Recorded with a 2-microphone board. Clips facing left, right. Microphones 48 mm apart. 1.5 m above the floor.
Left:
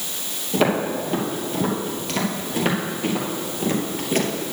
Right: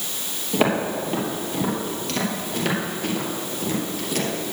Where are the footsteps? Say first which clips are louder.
Left 1 dB; 10° right (ahead or behind), 2.5 m; by 4.5 s 40° left (ahead or behind), 2 m.